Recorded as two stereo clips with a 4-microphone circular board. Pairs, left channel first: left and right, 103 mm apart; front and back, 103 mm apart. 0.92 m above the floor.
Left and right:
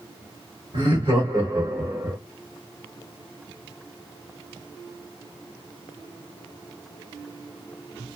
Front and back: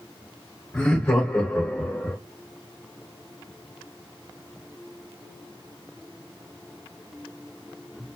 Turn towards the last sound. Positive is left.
turn(degrees=-45)